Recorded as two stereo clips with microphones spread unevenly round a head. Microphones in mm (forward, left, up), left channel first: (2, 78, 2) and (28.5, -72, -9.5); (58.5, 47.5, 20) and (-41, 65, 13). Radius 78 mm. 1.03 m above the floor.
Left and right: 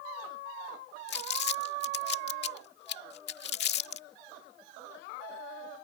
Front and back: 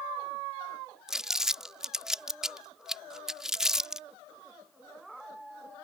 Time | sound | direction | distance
1.1 | crumpling | 85° left | ?